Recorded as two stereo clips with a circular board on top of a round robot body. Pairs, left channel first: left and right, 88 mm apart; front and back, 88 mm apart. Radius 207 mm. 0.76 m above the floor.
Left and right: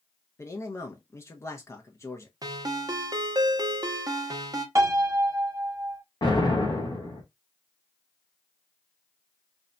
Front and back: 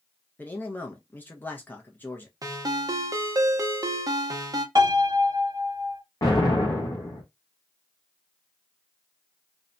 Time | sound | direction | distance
0.4 | a man speaking | 55° left | 0.8 m
2.4 | a ringtone | 135° right | 0.8 m
4.8 | a piano | 140° right | 1.0 m
6.2 | an explosion | 50° left | 0.5 m